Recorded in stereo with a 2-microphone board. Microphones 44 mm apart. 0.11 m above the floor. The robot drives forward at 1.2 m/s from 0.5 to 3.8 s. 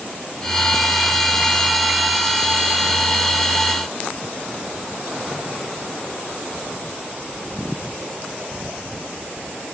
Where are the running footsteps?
I don't hear running footsteps.